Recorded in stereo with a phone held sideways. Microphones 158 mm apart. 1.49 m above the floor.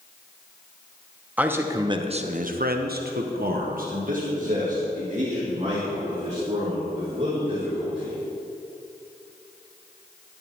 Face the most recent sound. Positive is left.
turn(degrees=-40)  # may be behind; listen again after turning